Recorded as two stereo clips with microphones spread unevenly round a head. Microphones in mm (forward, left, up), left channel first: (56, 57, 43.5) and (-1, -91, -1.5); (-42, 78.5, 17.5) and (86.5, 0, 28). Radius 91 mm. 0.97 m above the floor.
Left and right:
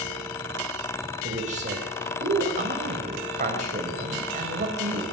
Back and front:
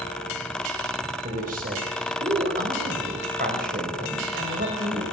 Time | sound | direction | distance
1.2 | a man speaking | 75° right | 5 m